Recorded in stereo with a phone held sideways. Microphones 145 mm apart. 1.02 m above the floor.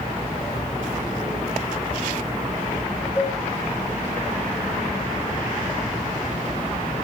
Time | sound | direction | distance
3.2 | a cowbell | 15° left (ahead or behind) | 4 m